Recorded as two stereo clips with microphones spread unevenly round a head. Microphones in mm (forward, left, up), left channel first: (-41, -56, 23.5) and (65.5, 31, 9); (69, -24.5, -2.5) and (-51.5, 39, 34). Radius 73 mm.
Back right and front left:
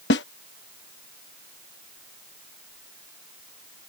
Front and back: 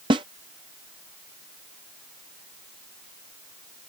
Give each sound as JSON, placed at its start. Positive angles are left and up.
{"t": 0.1, "sound": "a snare drum", "azimuth_deg": -150}